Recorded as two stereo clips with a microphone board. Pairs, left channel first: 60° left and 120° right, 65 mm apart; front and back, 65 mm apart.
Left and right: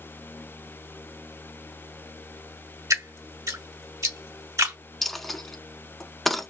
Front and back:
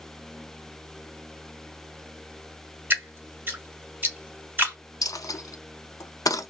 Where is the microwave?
No microwave in this recording.